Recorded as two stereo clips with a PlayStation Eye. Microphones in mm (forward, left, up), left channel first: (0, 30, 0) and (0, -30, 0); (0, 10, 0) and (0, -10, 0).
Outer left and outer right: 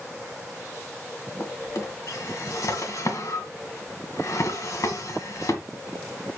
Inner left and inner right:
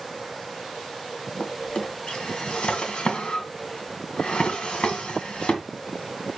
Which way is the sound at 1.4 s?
70° left (ahead or behind).